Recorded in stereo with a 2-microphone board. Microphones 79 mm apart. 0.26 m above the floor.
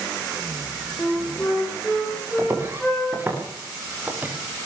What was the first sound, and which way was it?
A flute, 5° left (ahead or behind).